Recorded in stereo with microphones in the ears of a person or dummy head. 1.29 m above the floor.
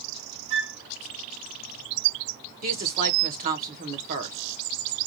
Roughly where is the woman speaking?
Right.